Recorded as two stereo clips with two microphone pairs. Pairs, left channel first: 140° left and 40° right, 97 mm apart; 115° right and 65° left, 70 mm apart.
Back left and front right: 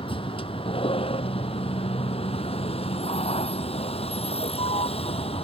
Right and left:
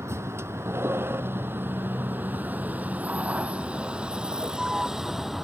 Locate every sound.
0.0 s a vehicle: 115° left; by 5.5 s 150° left